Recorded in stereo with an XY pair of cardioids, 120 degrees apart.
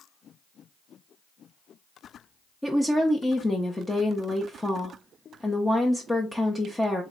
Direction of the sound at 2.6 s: 10° left.